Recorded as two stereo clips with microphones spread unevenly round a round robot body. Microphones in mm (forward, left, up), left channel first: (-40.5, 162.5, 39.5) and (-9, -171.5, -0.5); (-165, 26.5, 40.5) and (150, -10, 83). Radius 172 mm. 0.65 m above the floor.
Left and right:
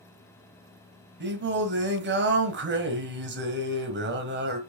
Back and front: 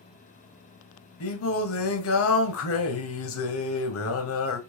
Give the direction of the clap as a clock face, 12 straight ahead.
I don't hear a clap.